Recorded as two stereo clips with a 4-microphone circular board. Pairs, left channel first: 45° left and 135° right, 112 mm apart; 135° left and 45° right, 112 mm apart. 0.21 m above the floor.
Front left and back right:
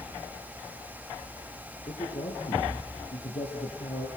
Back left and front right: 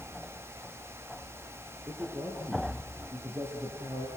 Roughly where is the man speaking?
Ahead left.